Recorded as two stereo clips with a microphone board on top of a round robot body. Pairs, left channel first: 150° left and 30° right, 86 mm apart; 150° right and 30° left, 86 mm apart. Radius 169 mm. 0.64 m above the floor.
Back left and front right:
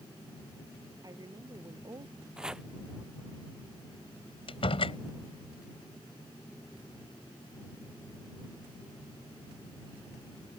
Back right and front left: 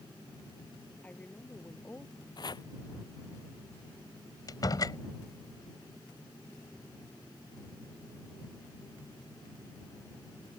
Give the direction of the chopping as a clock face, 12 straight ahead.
4 o'clock.